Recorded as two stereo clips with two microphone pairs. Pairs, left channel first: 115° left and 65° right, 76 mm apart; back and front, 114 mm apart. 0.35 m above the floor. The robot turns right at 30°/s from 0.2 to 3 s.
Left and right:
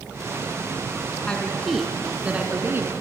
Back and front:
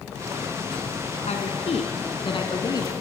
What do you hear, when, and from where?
1.3 s a woman speaking: 170° right, 3 m; by 2.9 s 120° right, 3 m